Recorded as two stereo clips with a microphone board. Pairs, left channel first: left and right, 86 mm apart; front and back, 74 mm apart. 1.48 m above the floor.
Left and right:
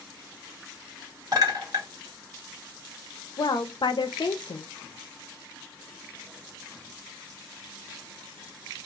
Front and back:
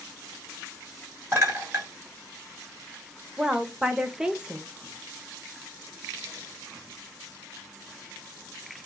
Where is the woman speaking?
105° left, 0.5 m.